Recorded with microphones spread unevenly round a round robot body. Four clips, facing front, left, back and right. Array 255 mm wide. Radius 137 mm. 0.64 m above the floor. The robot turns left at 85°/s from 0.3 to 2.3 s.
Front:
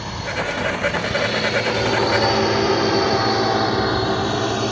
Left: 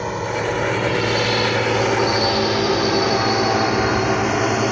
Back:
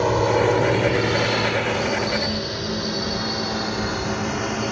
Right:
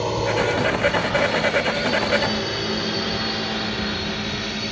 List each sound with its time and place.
0.0 s a drone: 170° right; by 4.7 s 70° left